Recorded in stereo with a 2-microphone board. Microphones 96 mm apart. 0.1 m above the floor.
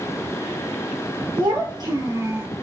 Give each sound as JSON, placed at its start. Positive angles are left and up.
{"t": 1.4, "sound": "a child speaking", "side_deg": -60, "distance_m": 1.5}